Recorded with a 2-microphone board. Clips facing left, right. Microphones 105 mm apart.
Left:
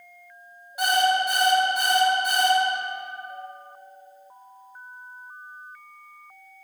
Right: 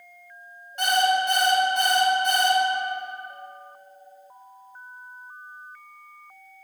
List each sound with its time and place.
0.8 s an alarm clock: 10° left (ahead or behind), 0.9 m